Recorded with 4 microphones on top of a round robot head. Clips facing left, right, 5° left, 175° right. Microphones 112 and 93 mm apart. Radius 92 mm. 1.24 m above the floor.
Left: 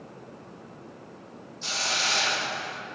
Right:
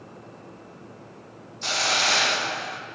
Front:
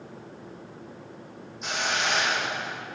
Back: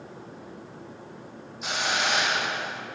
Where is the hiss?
90° right, 0.7 m.